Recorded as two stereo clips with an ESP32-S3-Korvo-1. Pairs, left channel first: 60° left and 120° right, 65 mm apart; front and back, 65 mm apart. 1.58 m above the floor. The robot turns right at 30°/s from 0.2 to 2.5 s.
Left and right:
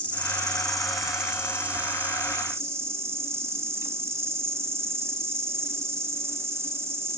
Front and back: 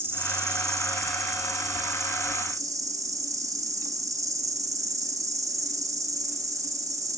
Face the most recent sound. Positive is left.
turn(degrees=-160)